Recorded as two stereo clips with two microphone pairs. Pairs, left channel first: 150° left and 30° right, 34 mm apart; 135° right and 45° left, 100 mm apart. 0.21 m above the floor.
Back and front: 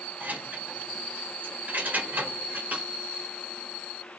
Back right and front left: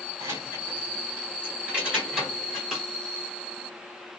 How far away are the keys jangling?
About 1.8 m.